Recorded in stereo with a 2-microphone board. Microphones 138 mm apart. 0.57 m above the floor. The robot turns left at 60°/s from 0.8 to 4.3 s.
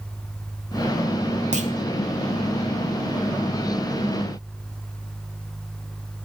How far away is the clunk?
About 0.6 m.